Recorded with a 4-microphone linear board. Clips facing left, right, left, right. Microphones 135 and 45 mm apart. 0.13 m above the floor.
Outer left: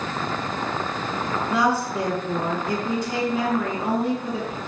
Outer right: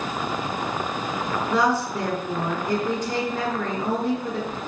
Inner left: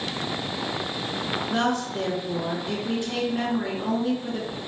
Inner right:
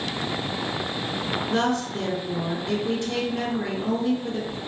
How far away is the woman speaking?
About 1.7 m.